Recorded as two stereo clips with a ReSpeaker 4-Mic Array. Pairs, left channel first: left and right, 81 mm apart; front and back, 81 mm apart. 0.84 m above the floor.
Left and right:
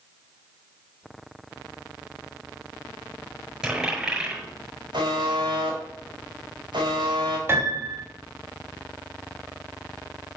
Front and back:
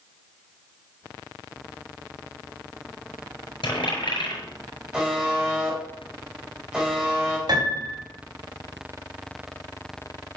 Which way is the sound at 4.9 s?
100° right.